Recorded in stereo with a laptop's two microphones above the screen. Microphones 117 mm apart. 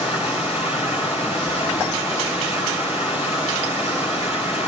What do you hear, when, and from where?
0.0 s running water: 60° left (ahead or behind), 5.5 m